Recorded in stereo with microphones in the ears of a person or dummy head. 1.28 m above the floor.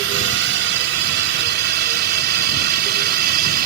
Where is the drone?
65° right (ahead or behind); by 3.7 s 55° right (ahead or behind).